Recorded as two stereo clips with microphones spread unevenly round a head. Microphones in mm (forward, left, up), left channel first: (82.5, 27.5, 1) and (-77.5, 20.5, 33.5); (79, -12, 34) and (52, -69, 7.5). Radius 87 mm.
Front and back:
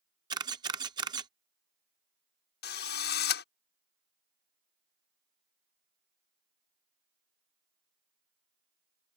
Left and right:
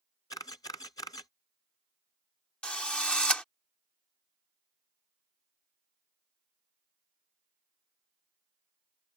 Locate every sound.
0.3 s a camera shutter: 120° left
2.6 s a drill: 10° right